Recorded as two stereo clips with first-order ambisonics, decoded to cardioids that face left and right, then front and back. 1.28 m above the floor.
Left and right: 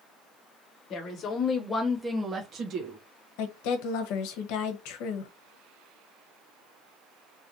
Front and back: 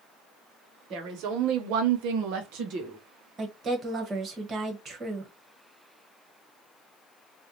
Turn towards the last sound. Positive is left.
turn(degrees=110)